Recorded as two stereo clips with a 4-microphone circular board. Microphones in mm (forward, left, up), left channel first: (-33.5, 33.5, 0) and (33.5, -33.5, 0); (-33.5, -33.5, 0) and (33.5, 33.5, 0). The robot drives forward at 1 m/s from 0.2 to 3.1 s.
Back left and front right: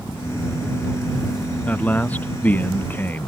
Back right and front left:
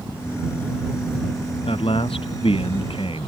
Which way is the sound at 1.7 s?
150° right.